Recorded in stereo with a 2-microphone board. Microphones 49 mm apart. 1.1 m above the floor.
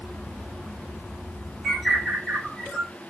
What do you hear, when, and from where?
1.6 s a bird: 5° right (ahead or behind), 1.4 m